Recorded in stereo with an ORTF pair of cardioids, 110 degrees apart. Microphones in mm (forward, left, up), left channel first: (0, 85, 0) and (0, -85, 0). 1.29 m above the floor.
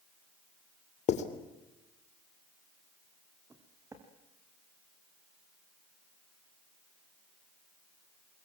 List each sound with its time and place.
1.1 s writing: 50° left, 2.5 m
3.5 s footsteps: 20° right, 4.5 m